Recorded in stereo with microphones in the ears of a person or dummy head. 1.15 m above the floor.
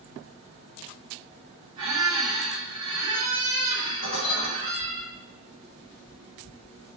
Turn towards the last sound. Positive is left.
turn(degrees=75)  # may be behind; listen again after turning